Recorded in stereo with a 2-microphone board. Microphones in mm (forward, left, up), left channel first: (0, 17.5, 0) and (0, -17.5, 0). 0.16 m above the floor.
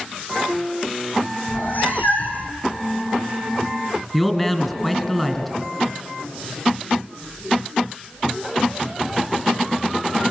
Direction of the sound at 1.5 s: 55° left (ahead or behind).